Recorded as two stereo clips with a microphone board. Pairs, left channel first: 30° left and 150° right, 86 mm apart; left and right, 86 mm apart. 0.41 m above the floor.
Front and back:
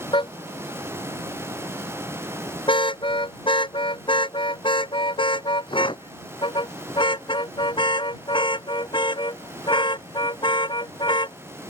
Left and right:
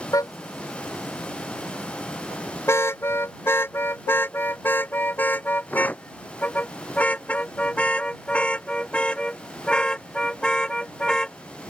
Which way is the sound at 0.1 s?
40° left.